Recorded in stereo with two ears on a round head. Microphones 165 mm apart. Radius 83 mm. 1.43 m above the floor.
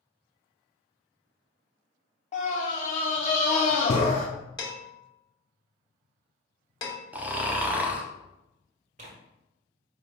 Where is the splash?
I don't hear a splash.